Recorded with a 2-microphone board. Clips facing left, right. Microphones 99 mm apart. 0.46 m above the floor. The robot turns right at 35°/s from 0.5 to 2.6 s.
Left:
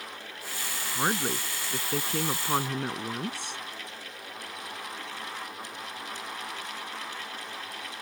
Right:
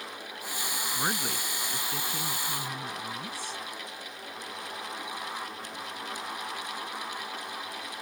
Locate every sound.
0.9 s a woman speaking: 20° left; by 3.6 s 75° left